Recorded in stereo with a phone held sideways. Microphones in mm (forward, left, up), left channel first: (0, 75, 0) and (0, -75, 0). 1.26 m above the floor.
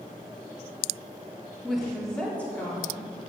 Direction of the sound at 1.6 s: 5° right (ahead or behind).